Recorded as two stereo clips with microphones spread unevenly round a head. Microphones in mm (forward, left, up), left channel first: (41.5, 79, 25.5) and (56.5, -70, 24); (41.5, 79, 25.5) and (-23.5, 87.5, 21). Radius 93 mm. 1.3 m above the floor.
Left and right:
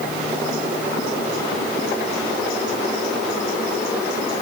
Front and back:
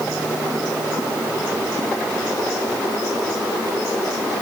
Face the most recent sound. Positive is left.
No sound to turn to.